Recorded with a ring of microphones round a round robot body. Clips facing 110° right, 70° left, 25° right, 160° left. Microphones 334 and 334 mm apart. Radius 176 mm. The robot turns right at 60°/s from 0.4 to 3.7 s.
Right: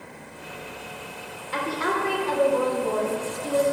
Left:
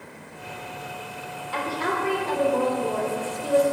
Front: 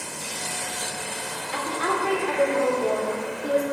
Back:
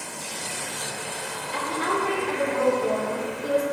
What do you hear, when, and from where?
1.5 s a woman speaking: 50° right, 3.5 m; by 3.6 s 75° left, 3.5 m